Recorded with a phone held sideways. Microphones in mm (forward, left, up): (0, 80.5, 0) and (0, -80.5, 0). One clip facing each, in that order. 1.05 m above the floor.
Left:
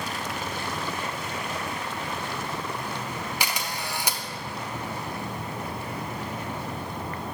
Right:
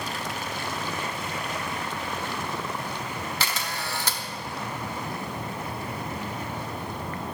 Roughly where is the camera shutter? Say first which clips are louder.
Even; centre.